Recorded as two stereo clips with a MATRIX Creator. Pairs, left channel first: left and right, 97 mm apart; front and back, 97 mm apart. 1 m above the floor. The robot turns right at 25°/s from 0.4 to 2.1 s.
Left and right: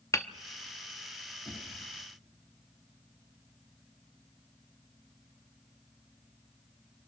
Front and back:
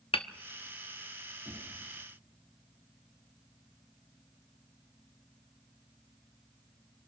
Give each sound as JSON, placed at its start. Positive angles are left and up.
{"t": 0.1, "sound": "hammering", "azimuth_deg": 30, "distance_m": 0.9}
{"t": 1.4, "sound": "knocking", "azimuth_deg": -140, "distance_m": 9.5}